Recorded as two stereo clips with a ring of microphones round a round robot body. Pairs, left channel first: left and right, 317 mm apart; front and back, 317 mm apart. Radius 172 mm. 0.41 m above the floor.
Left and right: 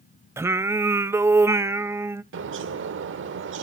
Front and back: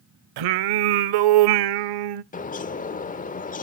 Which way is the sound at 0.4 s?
175° right.